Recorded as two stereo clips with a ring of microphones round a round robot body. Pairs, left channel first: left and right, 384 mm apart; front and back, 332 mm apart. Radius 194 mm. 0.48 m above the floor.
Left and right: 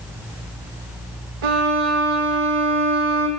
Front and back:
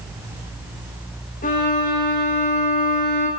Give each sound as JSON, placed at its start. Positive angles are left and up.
{"t": 1.4, "sound": "a violin", "azimuth_deg": -70, "distance_m": 4.0}